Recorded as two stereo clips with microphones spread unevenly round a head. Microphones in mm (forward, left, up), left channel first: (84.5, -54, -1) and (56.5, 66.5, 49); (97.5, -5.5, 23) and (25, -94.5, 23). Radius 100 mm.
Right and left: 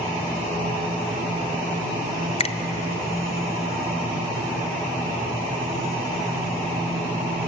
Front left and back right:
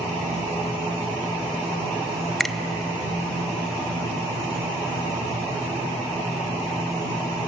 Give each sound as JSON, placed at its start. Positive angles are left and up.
{"t": 2.4, "sound": "a finger snap", "azimuth_deg": -35, "distance_m": 1.0}